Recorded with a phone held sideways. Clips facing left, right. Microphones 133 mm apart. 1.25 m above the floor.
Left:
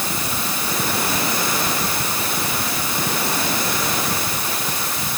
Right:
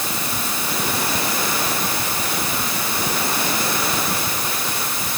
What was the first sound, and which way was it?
Only background noise.